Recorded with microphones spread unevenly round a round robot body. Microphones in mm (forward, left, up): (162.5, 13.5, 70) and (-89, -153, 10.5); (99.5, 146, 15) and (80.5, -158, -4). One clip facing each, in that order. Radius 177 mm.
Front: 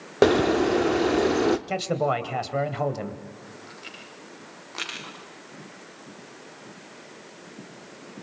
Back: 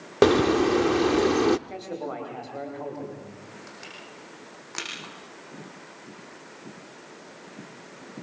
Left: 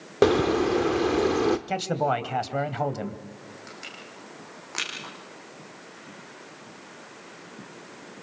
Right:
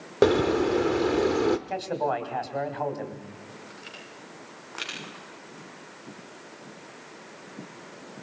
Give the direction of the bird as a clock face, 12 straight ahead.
6 o'clock.